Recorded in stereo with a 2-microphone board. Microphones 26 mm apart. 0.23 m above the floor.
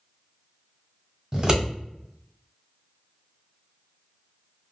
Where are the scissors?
25° right (ahead or behind), 1.1 m.